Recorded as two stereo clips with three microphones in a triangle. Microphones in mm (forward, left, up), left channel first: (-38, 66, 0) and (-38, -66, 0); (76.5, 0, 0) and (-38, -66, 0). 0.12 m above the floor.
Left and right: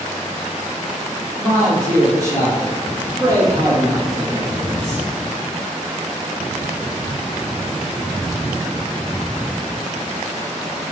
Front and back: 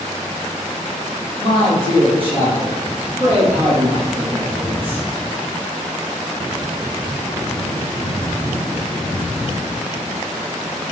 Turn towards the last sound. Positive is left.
turn(degrees=-140)